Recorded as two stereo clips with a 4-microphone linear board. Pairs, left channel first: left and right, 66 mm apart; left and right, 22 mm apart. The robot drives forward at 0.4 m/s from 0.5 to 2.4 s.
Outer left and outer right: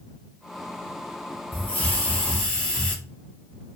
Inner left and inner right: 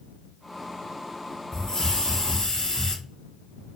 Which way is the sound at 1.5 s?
30° left (ahead or behind).